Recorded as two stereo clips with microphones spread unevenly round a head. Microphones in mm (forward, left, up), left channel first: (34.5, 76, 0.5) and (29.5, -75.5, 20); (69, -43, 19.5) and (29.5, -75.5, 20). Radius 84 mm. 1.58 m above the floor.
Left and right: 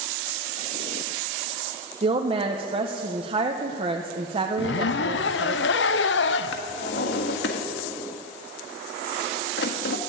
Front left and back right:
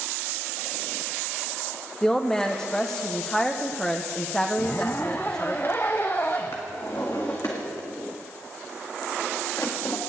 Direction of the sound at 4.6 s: 115° left.